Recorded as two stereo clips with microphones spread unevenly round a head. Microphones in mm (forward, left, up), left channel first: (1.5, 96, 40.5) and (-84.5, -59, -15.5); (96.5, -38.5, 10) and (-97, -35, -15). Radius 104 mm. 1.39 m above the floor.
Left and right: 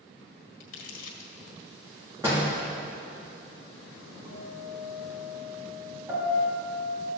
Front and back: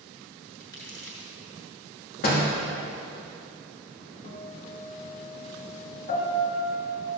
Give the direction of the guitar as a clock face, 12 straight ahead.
2 o'clock.